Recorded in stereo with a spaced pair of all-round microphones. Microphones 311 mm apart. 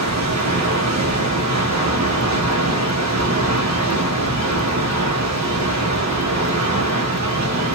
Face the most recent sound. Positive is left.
turn(degrees=-55)  # may be behind; listen again after turning